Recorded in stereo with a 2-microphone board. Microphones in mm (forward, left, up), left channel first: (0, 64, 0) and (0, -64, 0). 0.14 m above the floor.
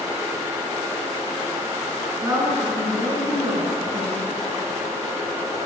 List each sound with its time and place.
2.2 s a woman speaking: 25° right (ahead or behind), 1.8 m